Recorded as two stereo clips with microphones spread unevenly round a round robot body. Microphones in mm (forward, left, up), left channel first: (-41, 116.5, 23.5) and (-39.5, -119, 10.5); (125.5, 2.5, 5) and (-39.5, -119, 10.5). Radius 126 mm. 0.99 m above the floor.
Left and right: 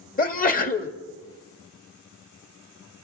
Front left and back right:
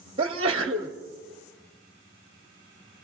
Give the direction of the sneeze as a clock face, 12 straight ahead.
7 o'clock.